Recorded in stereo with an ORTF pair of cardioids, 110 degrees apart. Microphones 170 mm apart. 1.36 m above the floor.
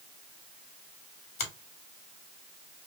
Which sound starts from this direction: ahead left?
A finger snap, at 1.4 s.